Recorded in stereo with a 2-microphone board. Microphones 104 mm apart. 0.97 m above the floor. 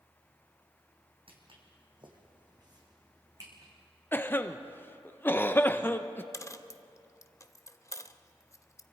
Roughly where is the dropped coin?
Left.